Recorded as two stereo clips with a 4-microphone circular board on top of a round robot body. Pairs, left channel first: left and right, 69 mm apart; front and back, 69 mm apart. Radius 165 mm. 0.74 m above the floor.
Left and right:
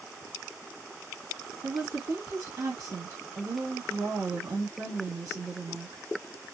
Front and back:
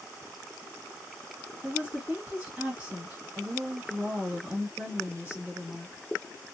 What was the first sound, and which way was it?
A woman speaking, 120° right.